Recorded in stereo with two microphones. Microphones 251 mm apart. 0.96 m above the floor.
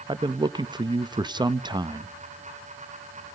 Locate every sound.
0.1 s a man speaking: 15° right (ahead or behind), 0.8 m